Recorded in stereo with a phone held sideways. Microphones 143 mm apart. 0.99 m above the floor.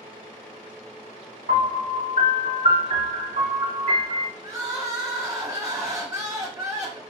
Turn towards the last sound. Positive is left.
turn(degrees=-25)  # may be behind; listen again after turning